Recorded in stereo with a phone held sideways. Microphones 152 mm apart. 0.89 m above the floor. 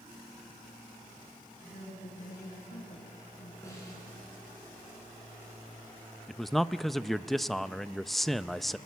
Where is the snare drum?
20° left (ahead or behind), 9.5 m.